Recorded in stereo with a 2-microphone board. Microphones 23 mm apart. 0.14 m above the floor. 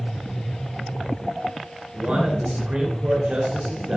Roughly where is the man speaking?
Right.